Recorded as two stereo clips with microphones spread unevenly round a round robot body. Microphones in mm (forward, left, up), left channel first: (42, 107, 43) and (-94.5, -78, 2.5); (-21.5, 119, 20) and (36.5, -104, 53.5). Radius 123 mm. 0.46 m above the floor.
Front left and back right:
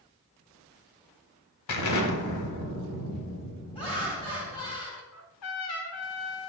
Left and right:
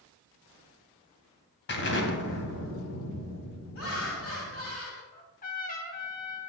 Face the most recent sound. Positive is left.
turn(degrees=60)